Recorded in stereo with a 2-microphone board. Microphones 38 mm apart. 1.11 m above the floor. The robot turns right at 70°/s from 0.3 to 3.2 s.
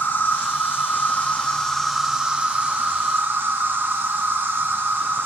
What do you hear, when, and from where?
0.0 s an insect: 65° left, 1.1 m; by 5.3 s 90° right, 1.1 m